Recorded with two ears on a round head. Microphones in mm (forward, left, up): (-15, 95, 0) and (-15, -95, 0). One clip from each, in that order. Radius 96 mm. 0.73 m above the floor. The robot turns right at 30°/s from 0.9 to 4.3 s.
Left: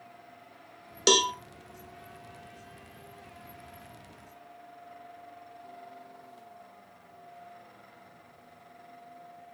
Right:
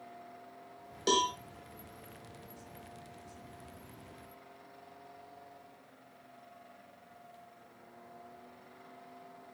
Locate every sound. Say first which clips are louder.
1.1 s a cowbell: left 6 dB; 65° left (ahead or behind), 1.1 m; by 1.3 s 60° left (ahead or behind), 1.1 m